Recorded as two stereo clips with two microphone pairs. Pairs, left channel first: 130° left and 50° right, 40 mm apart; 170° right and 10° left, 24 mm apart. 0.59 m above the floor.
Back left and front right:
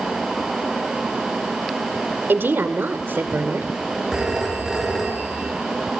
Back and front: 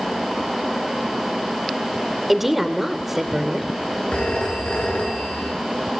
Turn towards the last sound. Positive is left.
turn(degrees=-135)